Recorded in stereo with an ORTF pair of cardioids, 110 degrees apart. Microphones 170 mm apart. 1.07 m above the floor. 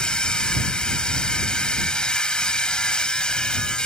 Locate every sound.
0.0 s a machine running: 5° left